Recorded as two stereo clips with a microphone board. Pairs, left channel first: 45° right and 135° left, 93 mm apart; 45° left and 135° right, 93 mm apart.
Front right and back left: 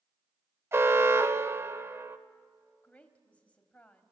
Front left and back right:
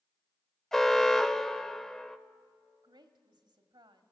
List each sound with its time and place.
0.7 s an alarm: 125° left, 0.7 m
2.8 s a woman speaking: 120° right, 1.5 m